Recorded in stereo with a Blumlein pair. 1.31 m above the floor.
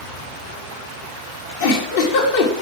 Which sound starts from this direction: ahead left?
A giggle, at 1.6 s.